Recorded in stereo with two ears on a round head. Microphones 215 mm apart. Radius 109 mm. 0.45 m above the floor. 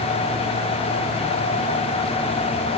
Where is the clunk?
No clunk in this recording.